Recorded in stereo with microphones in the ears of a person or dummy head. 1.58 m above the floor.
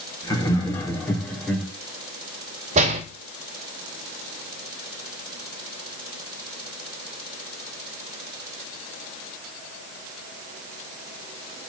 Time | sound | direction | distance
0.2 | laughter | 20° left (ahead or behind) | 3.5 m
2.8 | a door slam | 40° right (ahead or behind) | 2.5 m